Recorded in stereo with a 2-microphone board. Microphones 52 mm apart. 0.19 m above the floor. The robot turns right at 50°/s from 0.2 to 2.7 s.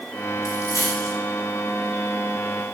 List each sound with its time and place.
0.5 s a dropped coin: 75° left (ahead or behind), 7 m; by 1.1 s 70° left (ahead or behind), 7 m